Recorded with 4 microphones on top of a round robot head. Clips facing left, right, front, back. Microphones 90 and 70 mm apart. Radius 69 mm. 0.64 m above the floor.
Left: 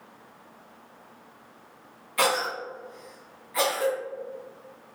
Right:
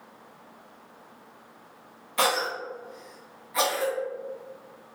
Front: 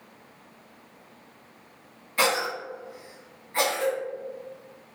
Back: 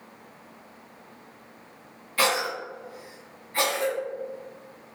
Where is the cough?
45° right, 1.3 m.